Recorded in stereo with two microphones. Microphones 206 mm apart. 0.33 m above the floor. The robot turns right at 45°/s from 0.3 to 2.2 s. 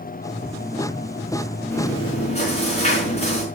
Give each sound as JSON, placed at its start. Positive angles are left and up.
{"t": 1.7, "sound": "chewing", "side_deg": 10, "distance_m": 4.5}